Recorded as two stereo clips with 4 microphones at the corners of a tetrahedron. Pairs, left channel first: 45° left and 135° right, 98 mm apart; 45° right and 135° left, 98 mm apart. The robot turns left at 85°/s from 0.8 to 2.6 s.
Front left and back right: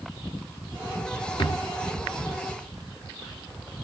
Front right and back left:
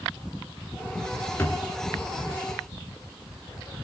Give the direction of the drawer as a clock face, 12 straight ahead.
11 o'clock.